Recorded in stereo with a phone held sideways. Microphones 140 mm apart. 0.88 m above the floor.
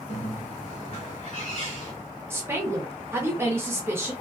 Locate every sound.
0.1 s a bird: 60° left (ahead or behind), 1.2 m
2.3 s a woman speaking: 15° right (ahead or behind), 0.7 m